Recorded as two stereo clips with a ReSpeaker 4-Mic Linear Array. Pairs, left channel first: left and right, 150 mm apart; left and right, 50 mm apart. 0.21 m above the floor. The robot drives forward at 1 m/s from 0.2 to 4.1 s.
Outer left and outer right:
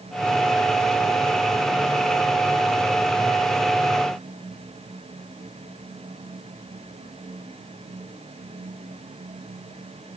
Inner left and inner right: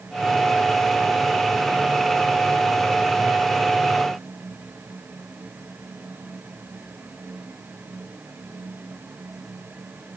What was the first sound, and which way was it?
Only background noise.